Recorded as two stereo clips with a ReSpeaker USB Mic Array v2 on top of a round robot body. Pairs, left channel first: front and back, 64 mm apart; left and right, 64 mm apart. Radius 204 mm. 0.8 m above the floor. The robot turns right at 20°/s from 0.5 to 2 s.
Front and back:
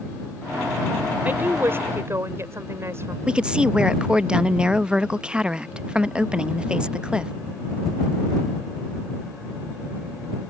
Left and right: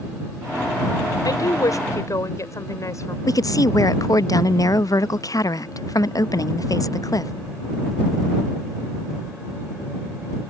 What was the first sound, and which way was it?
A woman speaking, 115° left.